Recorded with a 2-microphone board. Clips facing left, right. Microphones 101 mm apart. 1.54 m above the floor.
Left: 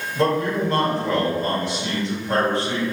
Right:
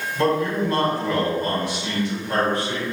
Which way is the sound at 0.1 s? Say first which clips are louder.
Even; 30° left (ahead or behind).